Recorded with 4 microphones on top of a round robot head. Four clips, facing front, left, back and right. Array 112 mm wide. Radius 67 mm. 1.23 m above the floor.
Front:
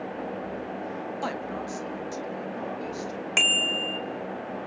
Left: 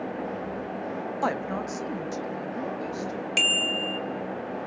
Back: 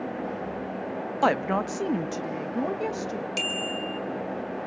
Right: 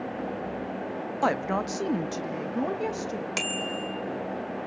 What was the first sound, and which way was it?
A woman speaking, straight behind.